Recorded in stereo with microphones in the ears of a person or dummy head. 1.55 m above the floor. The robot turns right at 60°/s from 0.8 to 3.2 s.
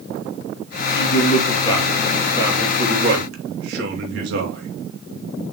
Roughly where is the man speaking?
Behind left.